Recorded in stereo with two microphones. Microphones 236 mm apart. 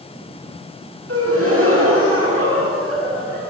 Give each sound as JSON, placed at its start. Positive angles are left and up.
{"t": 1.1, "sound": "a gasp", "side_deg": -70, "distance_m": 7.5}